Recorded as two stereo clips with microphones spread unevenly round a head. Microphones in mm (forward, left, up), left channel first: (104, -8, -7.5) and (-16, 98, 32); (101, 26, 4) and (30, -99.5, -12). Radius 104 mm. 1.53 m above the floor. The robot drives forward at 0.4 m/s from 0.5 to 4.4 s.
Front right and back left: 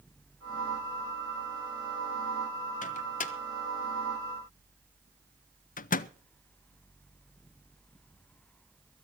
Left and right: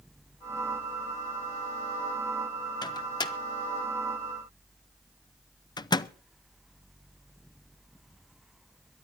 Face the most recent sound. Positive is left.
turn(degrees=0)